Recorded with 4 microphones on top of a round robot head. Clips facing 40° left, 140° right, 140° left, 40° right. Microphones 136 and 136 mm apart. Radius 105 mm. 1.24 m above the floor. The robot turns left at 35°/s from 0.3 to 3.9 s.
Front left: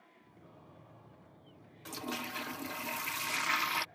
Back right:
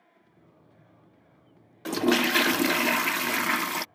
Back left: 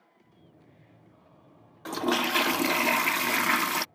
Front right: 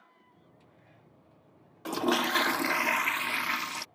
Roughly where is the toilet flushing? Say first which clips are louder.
Back right 18 dB, back left 1 dB; behind right.